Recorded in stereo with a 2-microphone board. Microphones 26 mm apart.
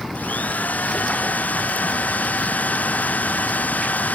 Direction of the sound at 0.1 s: 85° left.